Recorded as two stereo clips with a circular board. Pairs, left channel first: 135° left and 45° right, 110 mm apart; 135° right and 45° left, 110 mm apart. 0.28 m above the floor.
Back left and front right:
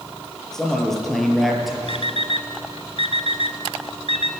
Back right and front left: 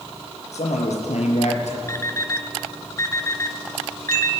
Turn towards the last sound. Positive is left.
turn(degrees=160)